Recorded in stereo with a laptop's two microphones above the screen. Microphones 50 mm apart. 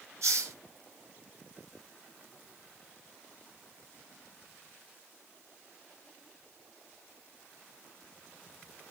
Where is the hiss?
70° right (ahead or behind), 0.8 m.